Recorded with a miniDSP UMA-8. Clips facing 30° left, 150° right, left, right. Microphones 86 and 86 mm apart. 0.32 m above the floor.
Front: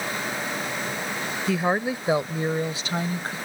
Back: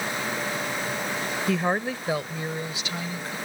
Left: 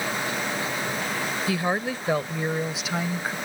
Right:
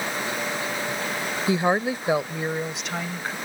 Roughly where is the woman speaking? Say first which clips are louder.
Front 2 dB, right 6 dB; ahead right.